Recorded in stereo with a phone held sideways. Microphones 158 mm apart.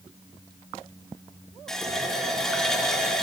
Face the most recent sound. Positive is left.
turn(degrees=5)  # may be behind; listen again after turning